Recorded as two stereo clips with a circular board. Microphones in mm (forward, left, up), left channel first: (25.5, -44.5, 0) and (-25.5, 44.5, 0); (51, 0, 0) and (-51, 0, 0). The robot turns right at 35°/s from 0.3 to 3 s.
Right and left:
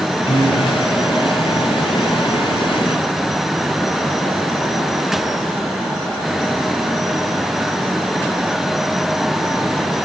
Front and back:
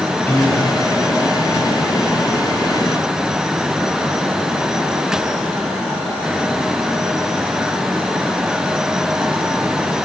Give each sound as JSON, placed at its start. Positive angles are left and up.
{"t": 0.3, "sound": "a piano", "azimuth_deg": -70, "distance_m": 1.5}